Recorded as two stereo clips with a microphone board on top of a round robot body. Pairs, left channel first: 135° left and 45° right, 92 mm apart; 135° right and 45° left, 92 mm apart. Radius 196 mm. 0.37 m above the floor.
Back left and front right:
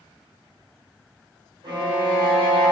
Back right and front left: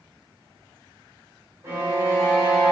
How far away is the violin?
About 0.8 m.